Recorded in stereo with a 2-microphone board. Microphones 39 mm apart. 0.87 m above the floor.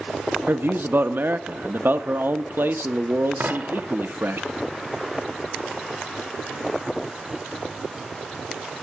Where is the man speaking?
65° right (ahead or behind), 0.8 m.